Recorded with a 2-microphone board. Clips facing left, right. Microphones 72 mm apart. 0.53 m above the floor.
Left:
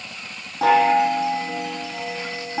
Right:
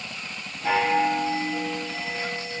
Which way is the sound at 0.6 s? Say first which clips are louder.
Left 6 dB; 80° left.